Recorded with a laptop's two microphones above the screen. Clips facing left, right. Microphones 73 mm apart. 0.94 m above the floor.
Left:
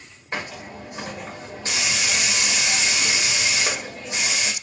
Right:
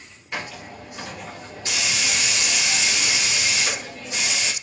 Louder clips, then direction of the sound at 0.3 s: Left 1 dB; 30° left (ahead or behind).